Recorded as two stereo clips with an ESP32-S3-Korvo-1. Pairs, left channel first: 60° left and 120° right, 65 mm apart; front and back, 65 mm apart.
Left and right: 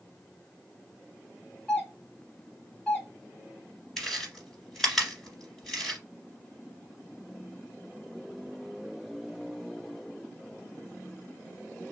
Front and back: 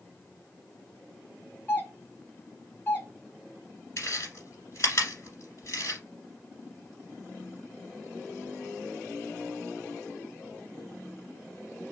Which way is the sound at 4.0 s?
25° right.